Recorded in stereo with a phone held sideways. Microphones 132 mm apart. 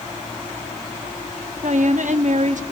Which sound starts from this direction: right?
A woman speaking, at 1.6 s.